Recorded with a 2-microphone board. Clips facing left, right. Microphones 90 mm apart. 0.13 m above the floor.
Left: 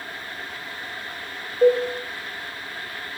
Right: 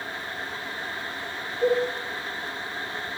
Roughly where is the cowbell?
Left.